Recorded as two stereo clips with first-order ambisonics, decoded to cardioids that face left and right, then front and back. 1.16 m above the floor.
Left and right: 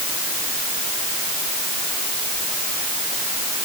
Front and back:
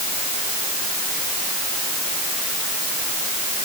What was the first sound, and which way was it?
Only background noise.